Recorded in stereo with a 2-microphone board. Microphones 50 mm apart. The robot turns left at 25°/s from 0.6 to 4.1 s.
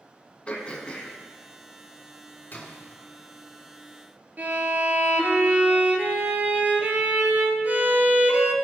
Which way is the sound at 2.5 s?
40° left (ahead or behind).